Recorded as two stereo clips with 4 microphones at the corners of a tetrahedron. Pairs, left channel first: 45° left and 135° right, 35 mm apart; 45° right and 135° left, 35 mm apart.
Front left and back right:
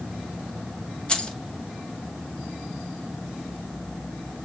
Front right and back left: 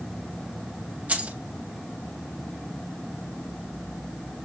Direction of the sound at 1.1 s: 95° left.